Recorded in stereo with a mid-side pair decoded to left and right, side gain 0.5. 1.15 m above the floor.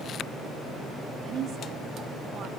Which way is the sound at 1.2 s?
55° right.